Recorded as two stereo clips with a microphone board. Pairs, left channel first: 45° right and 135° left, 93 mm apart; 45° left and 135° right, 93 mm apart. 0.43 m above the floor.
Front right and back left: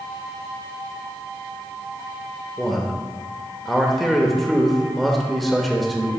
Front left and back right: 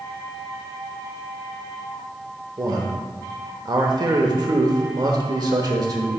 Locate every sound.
2.6 s a man speaking: 135° right, 1.0 m